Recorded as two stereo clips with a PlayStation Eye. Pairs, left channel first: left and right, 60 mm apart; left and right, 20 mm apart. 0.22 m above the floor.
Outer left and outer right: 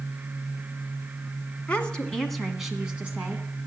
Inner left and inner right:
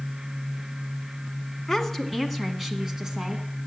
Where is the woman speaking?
20° left (ahead or behind), 1.6 m; by 3.5 s 30° right (ahead or behind), 1.8 m.